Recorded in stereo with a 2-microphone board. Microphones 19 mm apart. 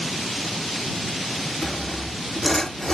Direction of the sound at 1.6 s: 25° left (ahead or behind).